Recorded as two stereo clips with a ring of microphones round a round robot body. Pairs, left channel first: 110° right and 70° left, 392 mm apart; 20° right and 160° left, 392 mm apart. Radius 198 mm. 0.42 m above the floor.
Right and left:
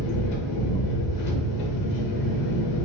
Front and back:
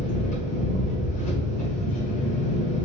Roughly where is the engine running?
Right.